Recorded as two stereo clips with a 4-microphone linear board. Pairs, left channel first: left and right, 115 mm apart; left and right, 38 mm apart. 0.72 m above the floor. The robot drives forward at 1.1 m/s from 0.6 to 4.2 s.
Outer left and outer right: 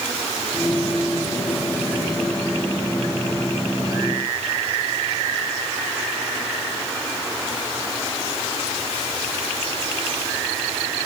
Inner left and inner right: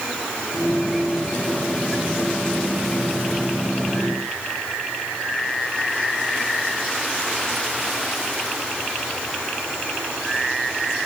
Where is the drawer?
I don't hear a drawer.